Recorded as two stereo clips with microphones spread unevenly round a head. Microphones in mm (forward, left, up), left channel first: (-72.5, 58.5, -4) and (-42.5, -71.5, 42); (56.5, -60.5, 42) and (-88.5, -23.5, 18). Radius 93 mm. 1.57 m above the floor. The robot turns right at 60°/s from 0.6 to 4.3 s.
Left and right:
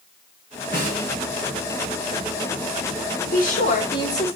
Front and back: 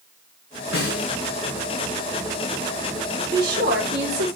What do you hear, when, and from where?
0.7 s a snare drum: 20° right, 5 m; by 1.2 s 10° left, 5 m
3.3 s a woman speaking: 115° left, 5 m; by 4.4 s straight behind, 5 m